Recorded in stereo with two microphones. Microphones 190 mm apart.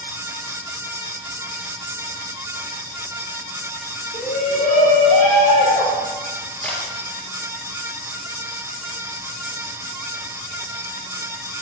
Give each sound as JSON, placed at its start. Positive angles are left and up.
{"t": 4.1, "sound": "a shout", "side_deg": 50, "distance_m": 5.0}
{"t": 6.6, "sound": "a camera shutter", "side_deg": 10, "distance_m": 4.0}